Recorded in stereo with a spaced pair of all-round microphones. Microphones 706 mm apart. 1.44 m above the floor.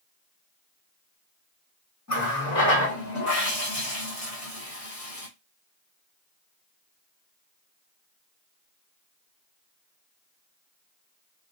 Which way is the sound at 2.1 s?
25° left (ahead or behind).